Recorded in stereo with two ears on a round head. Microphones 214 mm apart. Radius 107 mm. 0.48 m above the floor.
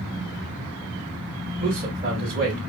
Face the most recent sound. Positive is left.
turn(degrees=-40)  # may be behind; listen again after turning